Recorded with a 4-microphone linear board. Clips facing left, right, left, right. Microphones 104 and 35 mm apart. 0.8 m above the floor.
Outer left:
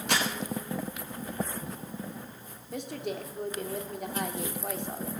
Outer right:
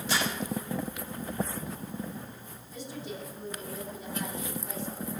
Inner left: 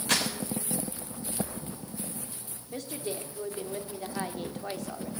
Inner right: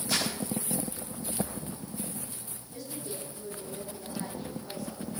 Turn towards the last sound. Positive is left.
turn(degrees=65)  # may be behind; listen again after turning